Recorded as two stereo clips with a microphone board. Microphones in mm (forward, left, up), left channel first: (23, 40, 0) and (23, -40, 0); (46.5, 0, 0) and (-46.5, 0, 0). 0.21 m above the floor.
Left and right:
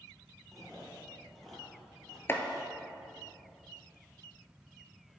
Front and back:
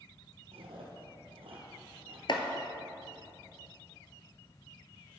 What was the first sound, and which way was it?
Chewing, 175° left.